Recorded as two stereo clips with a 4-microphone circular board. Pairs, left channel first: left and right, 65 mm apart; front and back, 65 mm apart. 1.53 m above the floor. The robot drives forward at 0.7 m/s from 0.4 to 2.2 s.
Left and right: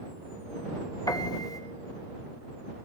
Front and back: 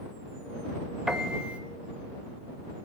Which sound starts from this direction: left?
A piano, at 1.1 s.